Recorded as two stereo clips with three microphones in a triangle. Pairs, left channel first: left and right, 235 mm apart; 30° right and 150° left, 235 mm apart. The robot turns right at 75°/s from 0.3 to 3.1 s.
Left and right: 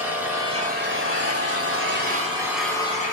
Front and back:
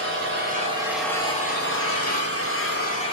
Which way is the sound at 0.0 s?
175° right.